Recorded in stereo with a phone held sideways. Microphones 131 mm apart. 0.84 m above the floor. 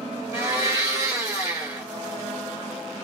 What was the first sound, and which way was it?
A blender, 25° right (ahead or behind).